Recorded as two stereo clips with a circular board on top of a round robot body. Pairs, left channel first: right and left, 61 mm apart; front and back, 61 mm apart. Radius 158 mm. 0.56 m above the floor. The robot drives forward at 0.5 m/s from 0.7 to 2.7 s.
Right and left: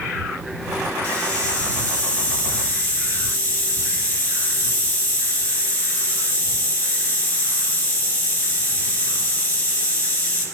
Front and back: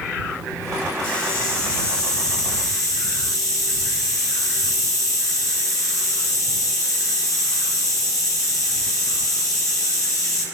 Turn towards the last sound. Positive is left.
turn(degrees=-30)